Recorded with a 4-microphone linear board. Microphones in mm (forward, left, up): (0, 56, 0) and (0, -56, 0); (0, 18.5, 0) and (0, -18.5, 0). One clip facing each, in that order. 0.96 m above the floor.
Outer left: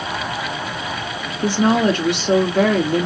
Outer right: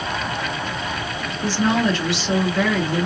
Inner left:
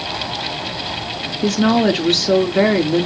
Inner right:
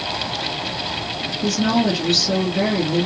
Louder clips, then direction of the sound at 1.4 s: Outer left 4 dB, inner left 4 dB; 50° left (ahead or behind).